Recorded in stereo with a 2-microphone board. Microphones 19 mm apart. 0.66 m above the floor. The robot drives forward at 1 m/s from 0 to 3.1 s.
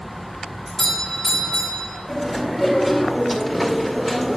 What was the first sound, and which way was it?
A doorbell, 25° left (ahead or behind).